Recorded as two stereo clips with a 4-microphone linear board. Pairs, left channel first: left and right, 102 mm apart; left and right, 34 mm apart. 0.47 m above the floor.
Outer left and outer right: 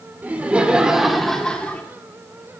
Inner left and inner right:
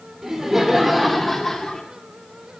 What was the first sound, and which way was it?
Laughter, 20° right (ahead or behind).